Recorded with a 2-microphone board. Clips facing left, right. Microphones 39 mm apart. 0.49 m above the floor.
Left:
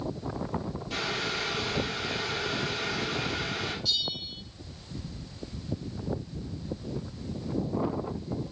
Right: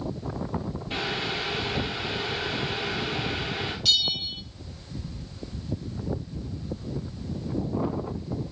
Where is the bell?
85° right, 0.9 m.